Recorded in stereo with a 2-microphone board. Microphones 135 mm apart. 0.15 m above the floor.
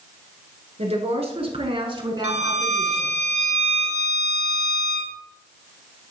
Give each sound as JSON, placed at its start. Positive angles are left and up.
{"t": 0.8, "sound": "a woman speaking", "side_deg": -55, "distance_m": 1.9}
{"t": 2.2, "sound": "a violin", "side_deg": -55, "distance_m": 1.0}